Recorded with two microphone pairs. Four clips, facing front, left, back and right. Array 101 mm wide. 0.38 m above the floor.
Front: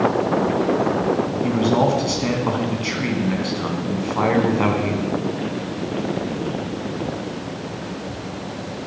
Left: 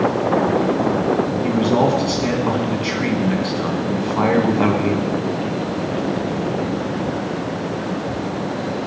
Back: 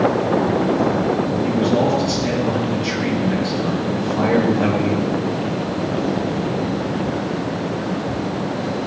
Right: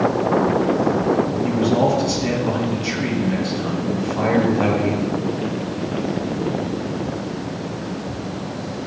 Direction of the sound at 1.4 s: 45° left.